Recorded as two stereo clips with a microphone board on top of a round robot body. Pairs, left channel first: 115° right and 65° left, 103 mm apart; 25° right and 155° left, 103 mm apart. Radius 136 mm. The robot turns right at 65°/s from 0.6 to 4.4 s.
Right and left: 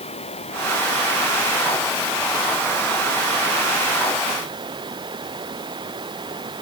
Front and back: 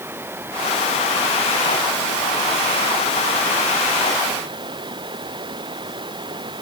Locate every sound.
0.0 s running water: 135° right; by 6.6 s 115° left